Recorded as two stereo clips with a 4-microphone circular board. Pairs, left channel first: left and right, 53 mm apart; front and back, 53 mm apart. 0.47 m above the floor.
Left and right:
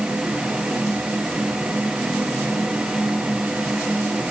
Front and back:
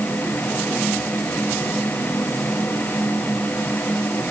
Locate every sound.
Only background noise.